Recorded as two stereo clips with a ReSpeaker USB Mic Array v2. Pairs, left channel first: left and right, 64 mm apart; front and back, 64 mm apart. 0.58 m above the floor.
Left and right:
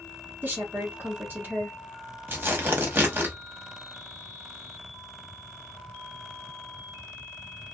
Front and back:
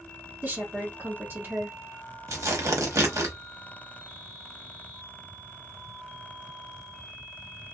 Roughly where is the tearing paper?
Behind right.